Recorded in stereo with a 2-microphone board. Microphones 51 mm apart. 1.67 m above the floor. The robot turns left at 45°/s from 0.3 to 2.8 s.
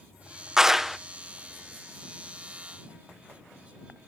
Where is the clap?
10° right (ahead or behind); by 1.0 s centre (ahead or behind).